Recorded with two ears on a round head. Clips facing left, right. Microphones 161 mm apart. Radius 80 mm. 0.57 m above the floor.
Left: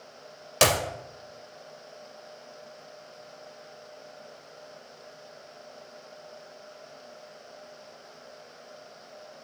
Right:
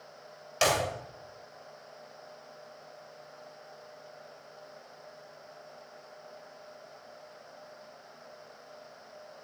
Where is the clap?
65° left (ahead or behind), 2 m.